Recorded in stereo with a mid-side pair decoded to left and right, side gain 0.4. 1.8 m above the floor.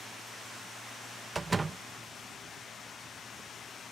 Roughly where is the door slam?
Ahead right.